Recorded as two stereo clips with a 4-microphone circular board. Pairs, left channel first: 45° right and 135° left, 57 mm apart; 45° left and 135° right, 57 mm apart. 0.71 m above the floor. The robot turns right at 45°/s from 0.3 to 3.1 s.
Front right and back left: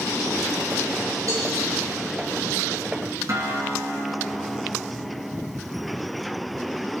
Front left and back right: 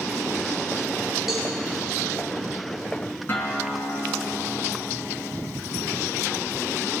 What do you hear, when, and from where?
1.3 s a cowbell: 140° left, 3 m; by 1.5 s 150° left, 3 m
3.3 s a guitar: 100° left, 3 m